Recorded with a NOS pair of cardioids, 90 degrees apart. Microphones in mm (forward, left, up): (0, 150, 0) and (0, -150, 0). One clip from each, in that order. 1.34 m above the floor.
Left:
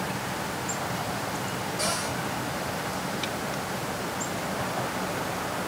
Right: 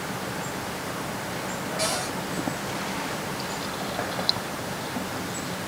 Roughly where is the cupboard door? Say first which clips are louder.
Right 1 dB; ahead.